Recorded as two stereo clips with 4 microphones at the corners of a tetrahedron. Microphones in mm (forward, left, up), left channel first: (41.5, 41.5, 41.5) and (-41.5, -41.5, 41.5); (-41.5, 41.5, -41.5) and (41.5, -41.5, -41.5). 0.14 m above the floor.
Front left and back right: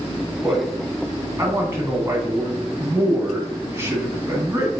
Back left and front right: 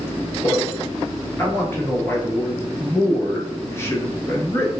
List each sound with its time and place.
0.4 s a man speaking: 175° left, 1.2 m